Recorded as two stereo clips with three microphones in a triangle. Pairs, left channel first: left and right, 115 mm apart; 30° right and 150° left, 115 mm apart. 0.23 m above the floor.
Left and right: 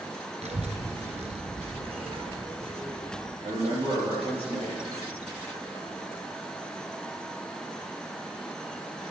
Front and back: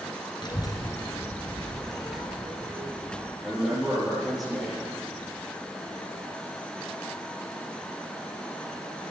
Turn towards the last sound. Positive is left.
turn(degrees=-120)